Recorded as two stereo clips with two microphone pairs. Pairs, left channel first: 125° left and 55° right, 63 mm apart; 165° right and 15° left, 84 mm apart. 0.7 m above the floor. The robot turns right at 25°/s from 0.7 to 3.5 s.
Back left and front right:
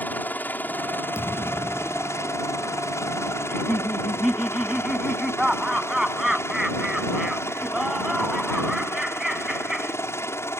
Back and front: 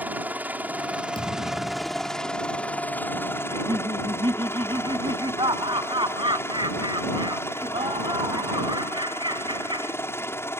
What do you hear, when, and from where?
0.0 s a helicopter: 80° left; by 10.6 s 150° left
1.1 s a thud: 175° left; by 2.1 s 165° right
3.5 s laughter: 30° left